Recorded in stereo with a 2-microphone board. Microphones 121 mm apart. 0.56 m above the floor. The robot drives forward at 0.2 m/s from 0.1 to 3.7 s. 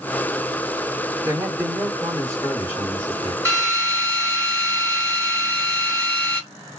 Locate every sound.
1.2 s a man speaking: 30° right (ahead or behind), 1.6 m; by 3.4 s 25° right (ahead or behind), 1.9 m
3.5 s a drill: 20° right (ahead or behind), 1.2 m